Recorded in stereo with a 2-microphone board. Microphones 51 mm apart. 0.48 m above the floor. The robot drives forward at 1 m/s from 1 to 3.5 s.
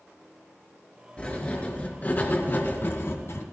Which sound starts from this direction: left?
Writing, at 1.2 s.